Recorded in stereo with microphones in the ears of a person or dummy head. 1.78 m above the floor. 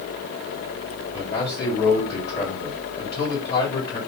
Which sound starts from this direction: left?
A man speaking, at 1.1 s.